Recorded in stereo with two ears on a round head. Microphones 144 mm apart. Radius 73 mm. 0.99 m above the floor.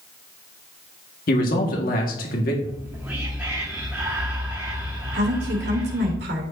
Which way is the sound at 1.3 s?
55° left (ahead or behind).